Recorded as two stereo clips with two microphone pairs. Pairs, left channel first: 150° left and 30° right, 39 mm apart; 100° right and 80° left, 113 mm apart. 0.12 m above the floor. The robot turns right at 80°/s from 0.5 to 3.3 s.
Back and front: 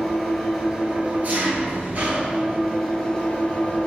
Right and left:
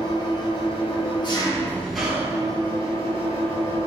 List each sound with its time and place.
0.0 s an engine running: 125° right, 1.1 m; by 3.9 s 95° left, 1.1 m